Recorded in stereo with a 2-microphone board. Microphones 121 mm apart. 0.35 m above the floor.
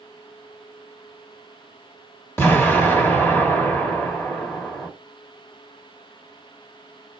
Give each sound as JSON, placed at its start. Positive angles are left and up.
{"t": 2.4, "sound": "an explosion", "side_deg": 20, "distance_m": 1.1}